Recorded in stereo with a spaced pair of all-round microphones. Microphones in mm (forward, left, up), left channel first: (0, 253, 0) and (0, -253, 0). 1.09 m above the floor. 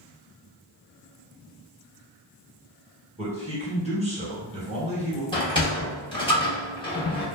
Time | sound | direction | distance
3.2 | a man speaking | 15° right (ahead or behind) | 1.3 m
5.3 | a sliding door | 10° left (ahead or behind) | 0.8 m